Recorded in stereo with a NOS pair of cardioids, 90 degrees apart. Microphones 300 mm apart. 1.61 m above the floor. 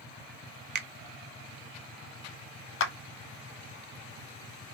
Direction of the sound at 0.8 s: 35° right.